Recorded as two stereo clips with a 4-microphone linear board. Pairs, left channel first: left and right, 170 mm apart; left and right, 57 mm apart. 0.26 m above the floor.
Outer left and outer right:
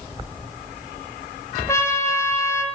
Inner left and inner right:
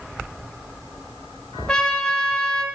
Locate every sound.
1.7 s a trumpet: 15° left (ahead or behind), 1.0 m